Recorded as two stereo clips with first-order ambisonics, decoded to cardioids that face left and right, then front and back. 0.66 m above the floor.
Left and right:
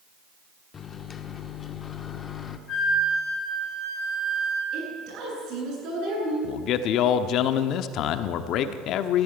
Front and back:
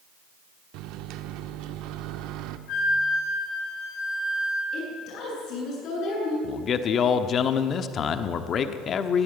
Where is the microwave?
155° left, 1.1 m.